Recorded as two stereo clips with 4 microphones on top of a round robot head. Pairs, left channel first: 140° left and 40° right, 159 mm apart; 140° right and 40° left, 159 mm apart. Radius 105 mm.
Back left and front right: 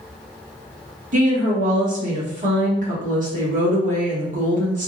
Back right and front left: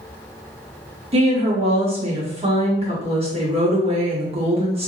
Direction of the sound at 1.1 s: 10° right.